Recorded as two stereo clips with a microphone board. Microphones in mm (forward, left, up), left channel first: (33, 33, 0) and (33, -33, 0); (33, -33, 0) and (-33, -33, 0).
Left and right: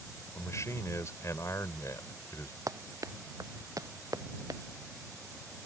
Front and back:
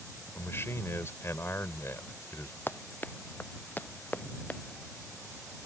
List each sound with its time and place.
0.3 s a man speaking: 50° left
2.7 s running footsteps: 55° right; by 4.6 s 65° right